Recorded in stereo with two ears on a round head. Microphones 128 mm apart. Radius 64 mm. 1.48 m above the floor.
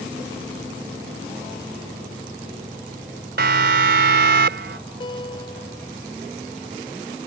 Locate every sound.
3.4 s a siren: 75° right (ahead or behind); by 4.8 s 80° right
5.0 s a guitar: 35° left (ahead or behind)